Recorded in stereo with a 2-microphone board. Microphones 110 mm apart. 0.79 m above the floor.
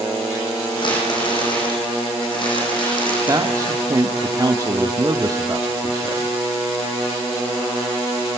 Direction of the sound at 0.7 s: 45° left (ahead or behind).